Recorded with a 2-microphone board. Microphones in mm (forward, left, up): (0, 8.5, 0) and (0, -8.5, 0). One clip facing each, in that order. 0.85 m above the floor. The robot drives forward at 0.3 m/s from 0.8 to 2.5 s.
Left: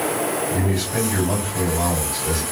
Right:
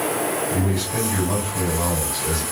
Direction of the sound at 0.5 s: 30° left (ahead or behind).